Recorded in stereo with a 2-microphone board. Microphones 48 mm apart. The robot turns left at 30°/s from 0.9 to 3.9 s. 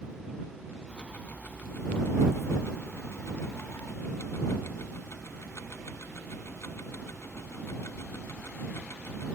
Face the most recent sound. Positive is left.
turn(degrees=65)